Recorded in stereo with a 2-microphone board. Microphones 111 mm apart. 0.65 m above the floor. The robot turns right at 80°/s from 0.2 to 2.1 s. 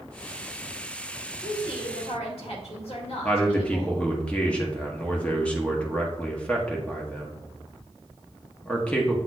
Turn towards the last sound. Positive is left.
turn(degrees=10)  # may be behind; listen again after turning